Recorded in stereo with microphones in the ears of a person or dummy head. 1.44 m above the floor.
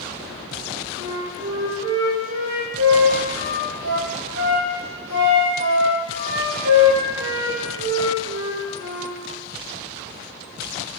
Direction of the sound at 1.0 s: 70° right (ahead or behind).